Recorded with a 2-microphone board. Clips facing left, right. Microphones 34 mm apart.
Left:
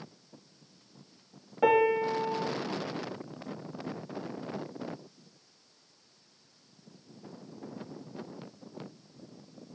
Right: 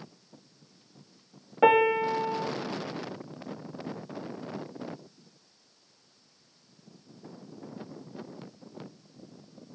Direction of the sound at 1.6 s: 25° right (ahead or behind).